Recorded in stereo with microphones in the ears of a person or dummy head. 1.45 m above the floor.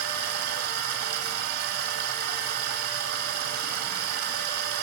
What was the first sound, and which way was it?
Running water, 55° right (ahead or behind).